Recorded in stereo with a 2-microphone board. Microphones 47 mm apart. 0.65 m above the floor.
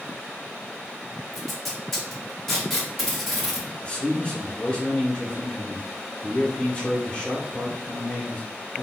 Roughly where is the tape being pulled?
Centre.